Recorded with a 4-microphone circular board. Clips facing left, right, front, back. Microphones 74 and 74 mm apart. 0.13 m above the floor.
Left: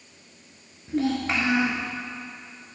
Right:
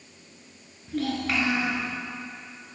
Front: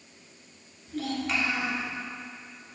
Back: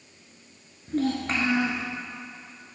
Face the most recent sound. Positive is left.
turn(degrees=145)